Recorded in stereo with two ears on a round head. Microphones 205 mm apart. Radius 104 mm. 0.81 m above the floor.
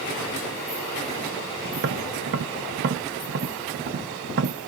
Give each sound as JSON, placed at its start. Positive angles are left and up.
{"t": 1.7, "sound": "tapping", "side_deg": -50, "distance_m": 0.5}